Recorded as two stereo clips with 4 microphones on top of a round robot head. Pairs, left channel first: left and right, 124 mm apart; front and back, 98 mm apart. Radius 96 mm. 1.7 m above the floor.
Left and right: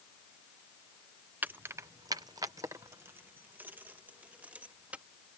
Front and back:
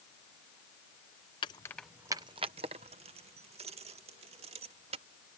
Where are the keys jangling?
25° right; by 5.0 s 170° right.